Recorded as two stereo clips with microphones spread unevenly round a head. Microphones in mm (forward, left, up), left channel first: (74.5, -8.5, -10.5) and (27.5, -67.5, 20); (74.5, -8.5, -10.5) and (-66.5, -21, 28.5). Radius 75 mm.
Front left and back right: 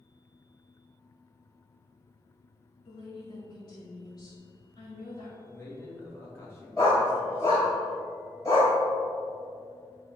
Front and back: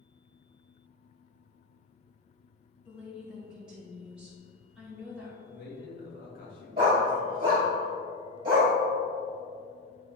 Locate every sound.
2.9 s a woman speaking: 95° left, 2.5 m
5.4 s a man speaking: 5° left, 2 m
6.8 s a dog barking: 125° left, 1.9 m